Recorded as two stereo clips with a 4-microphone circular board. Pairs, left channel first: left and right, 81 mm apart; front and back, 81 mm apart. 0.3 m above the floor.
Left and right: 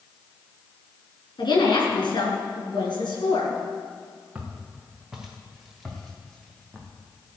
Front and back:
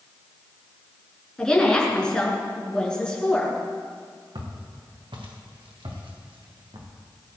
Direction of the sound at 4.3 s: 165° right.